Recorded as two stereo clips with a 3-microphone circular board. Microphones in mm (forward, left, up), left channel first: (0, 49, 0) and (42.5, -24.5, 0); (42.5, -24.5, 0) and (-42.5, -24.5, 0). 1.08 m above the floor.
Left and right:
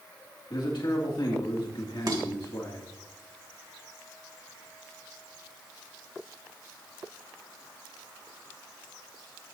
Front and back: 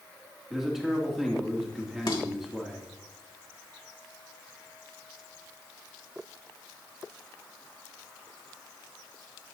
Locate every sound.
0.5 s a man speaking: 95° left, 2.5 m
2.1 s dishes clattering: 25° right, 3 m